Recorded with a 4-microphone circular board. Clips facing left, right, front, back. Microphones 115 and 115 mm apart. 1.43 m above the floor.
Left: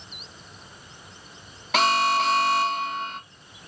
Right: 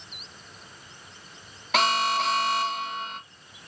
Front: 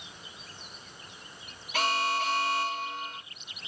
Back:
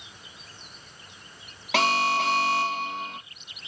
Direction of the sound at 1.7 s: Straight behind.